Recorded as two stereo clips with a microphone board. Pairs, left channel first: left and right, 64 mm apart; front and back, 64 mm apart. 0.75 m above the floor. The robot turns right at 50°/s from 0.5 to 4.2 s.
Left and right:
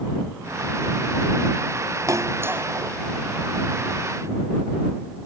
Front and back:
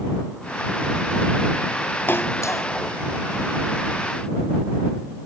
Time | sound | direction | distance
2.1 | a splash | 55° right | ?